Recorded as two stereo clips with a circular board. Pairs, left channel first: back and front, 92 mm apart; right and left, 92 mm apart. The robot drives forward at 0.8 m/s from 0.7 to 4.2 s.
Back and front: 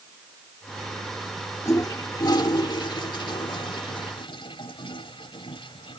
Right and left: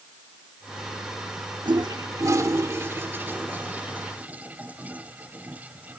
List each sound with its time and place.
1.6 s a toilet flushing: 125° left; by 6.0 s 160° left